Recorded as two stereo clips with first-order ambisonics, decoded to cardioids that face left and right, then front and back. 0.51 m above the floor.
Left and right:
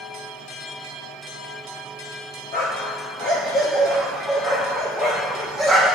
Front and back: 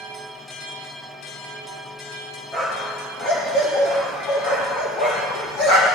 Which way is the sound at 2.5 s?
55° left.